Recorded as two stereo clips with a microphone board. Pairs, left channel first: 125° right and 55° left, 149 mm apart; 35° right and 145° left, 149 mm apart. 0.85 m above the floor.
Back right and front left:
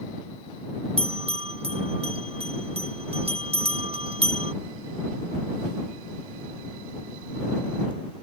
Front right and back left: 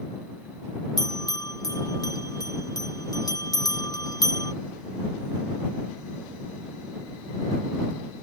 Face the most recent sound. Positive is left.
turn(degrees=25)